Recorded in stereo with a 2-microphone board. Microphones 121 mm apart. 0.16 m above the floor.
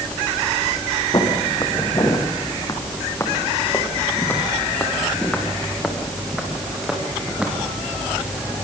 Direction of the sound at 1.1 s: 40° left (ahead or behind).